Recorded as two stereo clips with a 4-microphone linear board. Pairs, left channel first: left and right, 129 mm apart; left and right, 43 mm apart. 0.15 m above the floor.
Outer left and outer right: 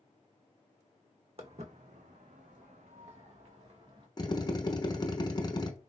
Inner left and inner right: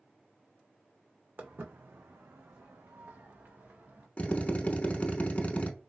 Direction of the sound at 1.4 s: 50° right (ahead or behind).